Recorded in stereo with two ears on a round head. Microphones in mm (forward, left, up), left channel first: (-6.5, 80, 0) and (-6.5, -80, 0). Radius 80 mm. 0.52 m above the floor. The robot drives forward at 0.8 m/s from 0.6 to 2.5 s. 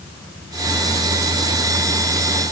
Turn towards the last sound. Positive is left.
No sound to turn to.